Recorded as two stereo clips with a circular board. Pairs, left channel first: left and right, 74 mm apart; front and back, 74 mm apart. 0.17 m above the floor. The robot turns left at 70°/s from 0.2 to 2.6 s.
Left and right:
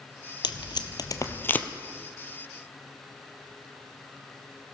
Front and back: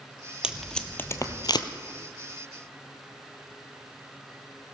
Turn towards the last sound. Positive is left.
turn(degrees=-50)